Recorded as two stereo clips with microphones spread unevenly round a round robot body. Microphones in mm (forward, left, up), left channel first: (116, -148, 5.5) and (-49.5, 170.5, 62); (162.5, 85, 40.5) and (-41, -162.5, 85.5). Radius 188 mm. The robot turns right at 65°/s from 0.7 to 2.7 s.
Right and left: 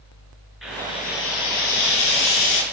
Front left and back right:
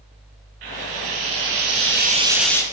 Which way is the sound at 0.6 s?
150° right.